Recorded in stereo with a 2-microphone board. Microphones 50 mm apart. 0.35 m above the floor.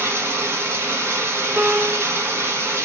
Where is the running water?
70° right (ahead or behind), 0.9 m.